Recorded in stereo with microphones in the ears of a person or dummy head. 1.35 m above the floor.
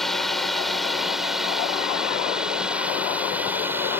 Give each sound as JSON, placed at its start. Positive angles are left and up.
{"t": 0.0, "sound": "a drone", "side_deg": 0}